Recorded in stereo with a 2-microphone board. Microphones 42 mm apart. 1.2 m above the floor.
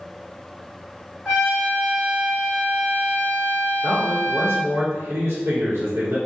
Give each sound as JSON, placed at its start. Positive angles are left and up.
{"t": 1.2, "sound": "a trumpet", "side_deg": -10, "distance_m": 1.4}
{"t": 3.8, "sound": "a man speaking", "side_deg": -80, "distance_m": 1.0}